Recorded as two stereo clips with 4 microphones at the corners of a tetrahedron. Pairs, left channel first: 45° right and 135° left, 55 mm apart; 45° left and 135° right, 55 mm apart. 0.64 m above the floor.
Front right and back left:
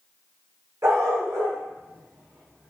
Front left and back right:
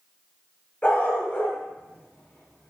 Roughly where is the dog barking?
Left.